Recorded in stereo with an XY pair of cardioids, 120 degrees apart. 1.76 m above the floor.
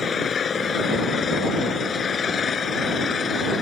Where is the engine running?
35° left.